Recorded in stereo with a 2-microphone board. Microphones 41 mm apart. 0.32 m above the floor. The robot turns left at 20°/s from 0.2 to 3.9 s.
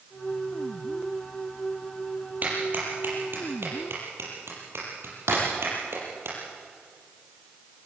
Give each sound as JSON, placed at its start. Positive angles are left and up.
{"t": 2.4, "sound": "a clap", "side_deg": -40, "distance_m": 6.5}
{"t": 5.3, "sound": "breaking glass", "side_deg": -85, "distance_m": 6.5}